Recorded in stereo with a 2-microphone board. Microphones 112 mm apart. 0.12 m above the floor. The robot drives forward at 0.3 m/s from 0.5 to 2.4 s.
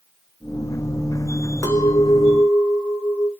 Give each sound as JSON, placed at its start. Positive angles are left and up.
{"t": 1.6, "sound": "a clink", "side_deg": 25, "distance_m": 1.2}